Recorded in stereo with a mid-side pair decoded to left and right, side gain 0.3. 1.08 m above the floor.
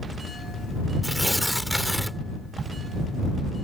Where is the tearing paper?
Straight ahead.